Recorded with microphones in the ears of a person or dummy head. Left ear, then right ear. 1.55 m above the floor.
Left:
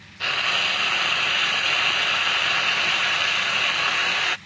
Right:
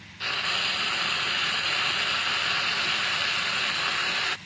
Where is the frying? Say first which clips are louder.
Left 5 dB; 20° left (ahead or behind).